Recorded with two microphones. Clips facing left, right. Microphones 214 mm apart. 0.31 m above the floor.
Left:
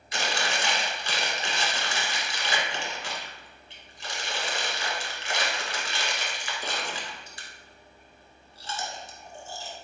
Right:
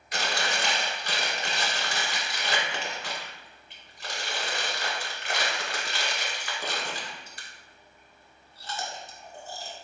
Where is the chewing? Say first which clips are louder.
Even; 60° right (ahead or behind), 0.7 m.